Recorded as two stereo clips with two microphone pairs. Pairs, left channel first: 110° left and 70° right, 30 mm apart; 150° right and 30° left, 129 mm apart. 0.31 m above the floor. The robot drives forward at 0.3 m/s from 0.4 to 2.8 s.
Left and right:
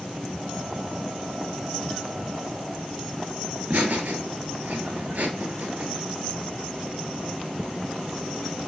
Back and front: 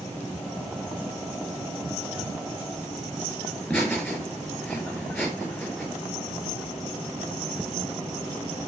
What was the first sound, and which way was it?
Laughter, 75° right.